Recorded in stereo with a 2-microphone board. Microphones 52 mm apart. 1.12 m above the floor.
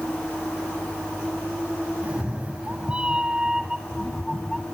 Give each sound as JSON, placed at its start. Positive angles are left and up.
{"t": 2.0, "sound": "a cat meowing", "side_deg": -25, "distance_m": 1.2}